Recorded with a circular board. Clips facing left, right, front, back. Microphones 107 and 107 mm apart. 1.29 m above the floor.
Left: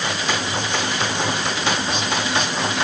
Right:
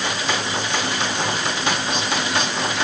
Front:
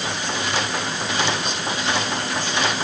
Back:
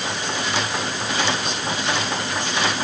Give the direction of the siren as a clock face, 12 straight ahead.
No siren in this recording.